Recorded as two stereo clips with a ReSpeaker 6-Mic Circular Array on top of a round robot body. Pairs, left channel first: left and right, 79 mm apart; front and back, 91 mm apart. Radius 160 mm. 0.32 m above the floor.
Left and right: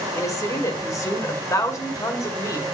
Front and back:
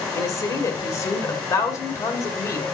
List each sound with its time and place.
0.1 s a woman speaking: 50° left, 2 m